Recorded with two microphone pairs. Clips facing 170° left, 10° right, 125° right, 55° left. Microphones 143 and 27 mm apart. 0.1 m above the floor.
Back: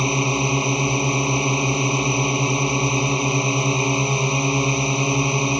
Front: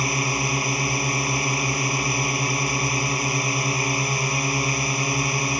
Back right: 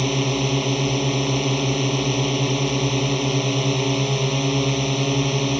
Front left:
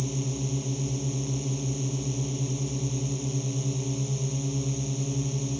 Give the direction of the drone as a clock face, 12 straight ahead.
4 o'clock.